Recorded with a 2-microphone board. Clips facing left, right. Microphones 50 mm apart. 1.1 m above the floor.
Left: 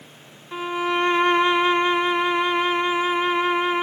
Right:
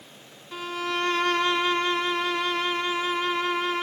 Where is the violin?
20° left (ahead or behind), 0.6 m.